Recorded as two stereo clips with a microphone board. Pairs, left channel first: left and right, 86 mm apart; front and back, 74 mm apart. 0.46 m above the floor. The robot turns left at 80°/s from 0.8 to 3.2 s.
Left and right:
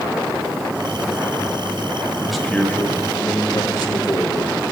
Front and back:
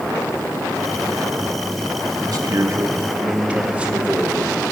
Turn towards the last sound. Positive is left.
turn(degrees=110)